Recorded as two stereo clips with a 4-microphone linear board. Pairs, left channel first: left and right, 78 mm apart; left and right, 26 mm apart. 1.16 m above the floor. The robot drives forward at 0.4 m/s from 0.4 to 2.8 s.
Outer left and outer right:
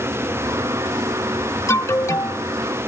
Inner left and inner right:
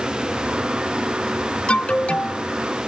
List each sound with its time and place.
1.7 s an alarm: 35° left (ahead or behind); by 2.4 s 45° left (ahead or behind)